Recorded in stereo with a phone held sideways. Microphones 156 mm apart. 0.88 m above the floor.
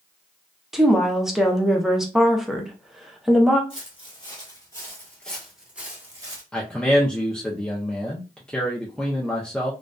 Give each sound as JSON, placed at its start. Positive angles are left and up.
{"t": 0.7, "sound": "a woman speaking", "side_deg": -5, "distance_m": 0.6}
{"t": 3.7, "sound": "footsteps", "side_deg": 40, "distance_m": 1.5}
{"t": 6.5, "sound": "a man speaking", "side_deg": 5, "distance_m": 0.5}